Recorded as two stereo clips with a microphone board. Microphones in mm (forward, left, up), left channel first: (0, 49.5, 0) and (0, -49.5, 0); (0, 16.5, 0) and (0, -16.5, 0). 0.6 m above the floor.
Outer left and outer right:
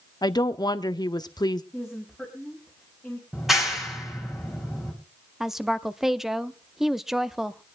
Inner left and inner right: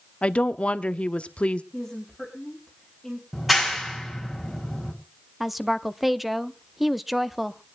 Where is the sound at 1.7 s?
5° right (ahead or behind), 4 m.